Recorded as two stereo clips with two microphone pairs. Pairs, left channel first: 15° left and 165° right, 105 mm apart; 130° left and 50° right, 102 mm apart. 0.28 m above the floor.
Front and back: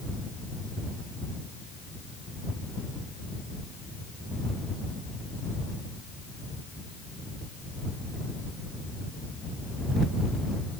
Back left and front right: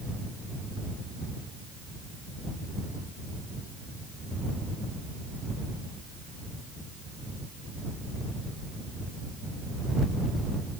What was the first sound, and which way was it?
Only background noise.